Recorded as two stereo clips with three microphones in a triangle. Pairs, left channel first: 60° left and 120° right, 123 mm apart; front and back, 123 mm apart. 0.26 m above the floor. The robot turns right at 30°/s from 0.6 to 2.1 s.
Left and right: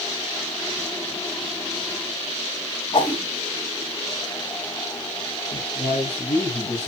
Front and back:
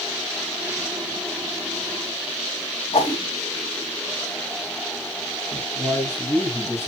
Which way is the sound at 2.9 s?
25° left.